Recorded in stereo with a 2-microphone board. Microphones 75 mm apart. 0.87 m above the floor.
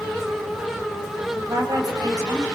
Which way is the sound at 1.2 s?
45° right (ahead or behind).